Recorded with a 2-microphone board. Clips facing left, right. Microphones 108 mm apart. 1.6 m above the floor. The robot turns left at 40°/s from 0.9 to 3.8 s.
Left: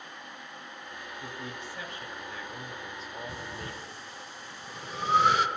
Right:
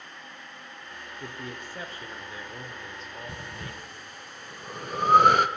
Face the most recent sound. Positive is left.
turn(degrees=-55)  # may be behind; listen again after turning